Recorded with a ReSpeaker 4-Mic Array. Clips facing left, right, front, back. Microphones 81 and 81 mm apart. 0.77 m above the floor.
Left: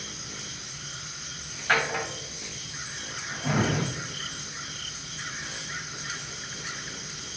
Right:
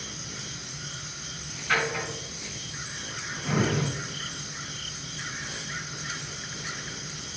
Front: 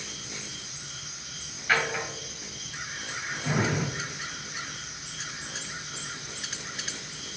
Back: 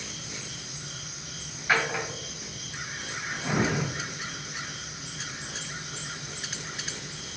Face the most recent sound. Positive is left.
turn(degrees=105)